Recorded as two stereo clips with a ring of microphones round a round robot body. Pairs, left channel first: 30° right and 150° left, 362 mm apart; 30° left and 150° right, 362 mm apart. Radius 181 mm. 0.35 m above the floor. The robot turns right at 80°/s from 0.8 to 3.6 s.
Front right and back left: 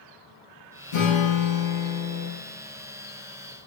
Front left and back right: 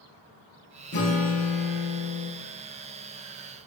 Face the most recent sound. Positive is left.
turn(degrees=-175)